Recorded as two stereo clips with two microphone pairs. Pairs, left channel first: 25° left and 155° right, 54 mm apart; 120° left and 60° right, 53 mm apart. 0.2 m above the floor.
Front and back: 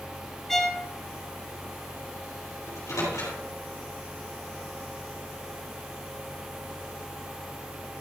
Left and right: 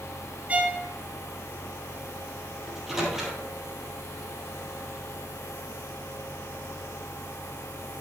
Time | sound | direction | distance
0.5 | a violin | 45° right | 1.0 m
2.7 | a microwave | 25° left | 3.5 m